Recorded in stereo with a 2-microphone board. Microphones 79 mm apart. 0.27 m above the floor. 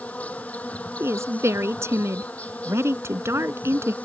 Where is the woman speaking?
35° right (ahead or behind).